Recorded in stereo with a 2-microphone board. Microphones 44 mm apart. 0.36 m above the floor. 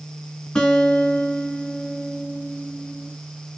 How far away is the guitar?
About 2.5 m.